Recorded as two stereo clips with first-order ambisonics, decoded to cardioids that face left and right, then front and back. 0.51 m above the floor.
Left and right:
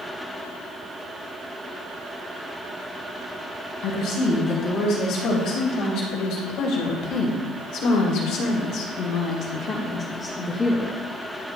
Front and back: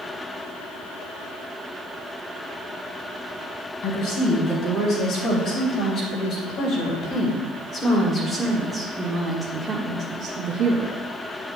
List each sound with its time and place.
3.8 s a woman speaking: 45° left, 4 m; by 10.9 s 170° left, 1.4 m